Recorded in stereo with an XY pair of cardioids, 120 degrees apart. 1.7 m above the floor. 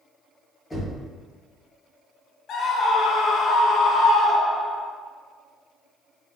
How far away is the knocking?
About 1.8 m.